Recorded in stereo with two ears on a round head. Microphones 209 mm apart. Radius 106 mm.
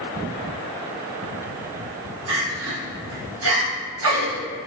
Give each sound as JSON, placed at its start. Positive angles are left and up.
{"t": 2.3, "sound": "crying", "side_deg": -80, "distance_m": 1.7}